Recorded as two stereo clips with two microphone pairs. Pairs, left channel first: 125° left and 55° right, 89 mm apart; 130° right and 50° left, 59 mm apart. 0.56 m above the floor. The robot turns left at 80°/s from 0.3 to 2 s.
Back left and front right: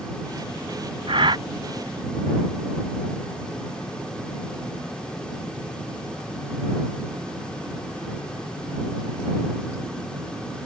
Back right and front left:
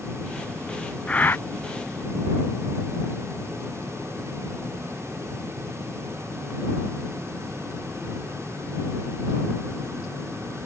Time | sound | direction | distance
1.1 | breathing | 60° right | ?